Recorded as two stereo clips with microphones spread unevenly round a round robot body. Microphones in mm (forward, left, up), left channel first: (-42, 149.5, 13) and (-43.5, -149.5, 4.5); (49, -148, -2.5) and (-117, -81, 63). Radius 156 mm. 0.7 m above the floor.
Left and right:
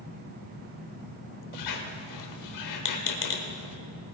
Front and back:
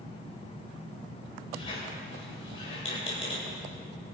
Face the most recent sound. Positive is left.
turn(degrees=55)